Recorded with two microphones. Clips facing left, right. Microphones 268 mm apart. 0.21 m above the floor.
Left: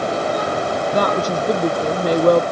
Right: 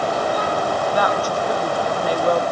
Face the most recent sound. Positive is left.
turn(degrees=45)  # may be behind; listen again after turning